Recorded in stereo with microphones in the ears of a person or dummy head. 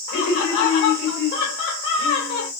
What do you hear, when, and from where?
0.1 s laughter: 50° left (ahead or behind), 2.5 m